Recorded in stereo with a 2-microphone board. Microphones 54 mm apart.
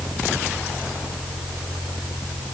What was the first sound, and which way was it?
Only background noise.